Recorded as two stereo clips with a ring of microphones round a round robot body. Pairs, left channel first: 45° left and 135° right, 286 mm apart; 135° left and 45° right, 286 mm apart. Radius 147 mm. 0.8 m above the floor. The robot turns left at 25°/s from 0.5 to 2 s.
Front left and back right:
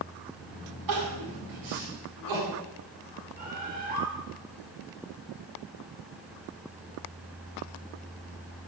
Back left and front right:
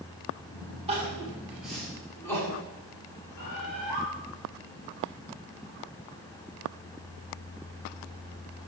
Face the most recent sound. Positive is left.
turn(degrees=165)